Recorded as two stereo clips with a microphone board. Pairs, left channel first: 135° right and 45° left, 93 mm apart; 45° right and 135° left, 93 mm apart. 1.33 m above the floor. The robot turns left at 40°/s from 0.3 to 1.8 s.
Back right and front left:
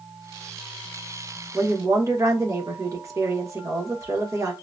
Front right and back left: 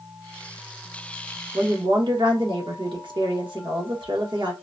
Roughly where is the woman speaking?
Left.